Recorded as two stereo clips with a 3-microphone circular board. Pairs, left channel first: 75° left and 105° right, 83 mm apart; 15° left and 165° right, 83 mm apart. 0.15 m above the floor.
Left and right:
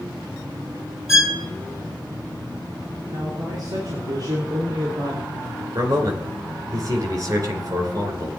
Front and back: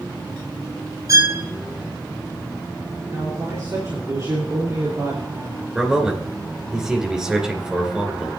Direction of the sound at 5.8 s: 85° right.